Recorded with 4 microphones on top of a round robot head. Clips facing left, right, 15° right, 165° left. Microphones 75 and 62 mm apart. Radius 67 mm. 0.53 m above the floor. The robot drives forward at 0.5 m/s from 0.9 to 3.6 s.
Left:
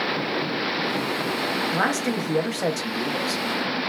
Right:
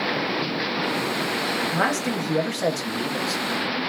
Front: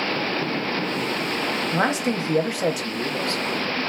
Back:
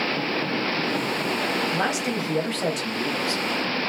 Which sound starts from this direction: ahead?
A man speaking, at 1.7 s.